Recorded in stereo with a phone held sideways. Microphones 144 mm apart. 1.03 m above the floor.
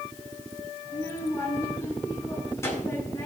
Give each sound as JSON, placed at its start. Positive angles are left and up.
{"t": 0.8, "sound": "a child speaking", "side_deg": 20, "distance_m": 8.5}